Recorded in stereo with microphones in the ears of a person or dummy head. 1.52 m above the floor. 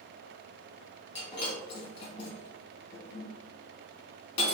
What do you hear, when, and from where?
1.1 s breaking glass: 40° left (ahead or behind), 1.4 m